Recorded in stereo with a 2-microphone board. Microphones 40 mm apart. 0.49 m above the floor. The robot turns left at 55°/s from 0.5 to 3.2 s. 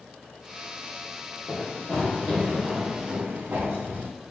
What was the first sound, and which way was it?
Running footsteps, 30° left (ahead or behind).